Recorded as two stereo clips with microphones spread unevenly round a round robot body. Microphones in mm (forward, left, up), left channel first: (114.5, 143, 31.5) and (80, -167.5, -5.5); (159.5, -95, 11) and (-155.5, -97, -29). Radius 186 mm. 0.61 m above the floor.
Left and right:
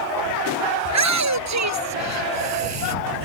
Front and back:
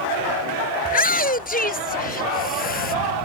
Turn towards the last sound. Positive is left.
turn(degrees=-65)